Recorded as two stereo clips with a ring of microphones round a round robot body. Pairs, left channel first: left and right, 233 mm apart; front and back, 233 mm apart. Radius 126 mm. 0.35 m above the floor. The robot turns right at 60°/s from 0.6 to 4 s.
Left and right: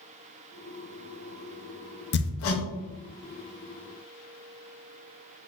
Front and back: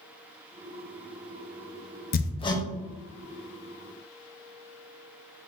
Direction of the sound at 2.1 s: 50° left.